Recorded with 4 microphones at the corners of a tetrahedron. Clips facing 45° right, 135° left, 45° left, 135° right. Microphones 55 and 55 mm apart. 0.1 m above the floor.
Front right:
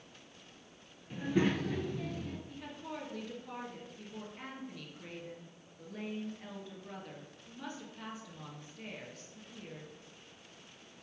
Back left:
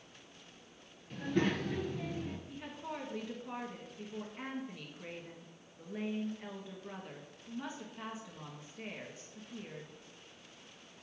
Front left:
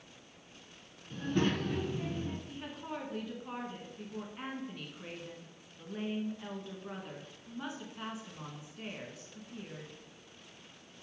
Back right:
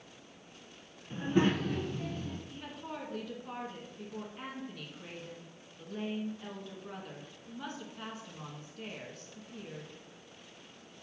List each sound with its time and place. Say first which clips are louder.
1.1 s a child speaking: front right 2 dB, back right 3 dB; 115° right, 0.7 m; by 2.4 s 65° left, 0.7 m
2.5 s a woman speaking: back left 1 dB, front left 1 dB; 100° left, 1.3 m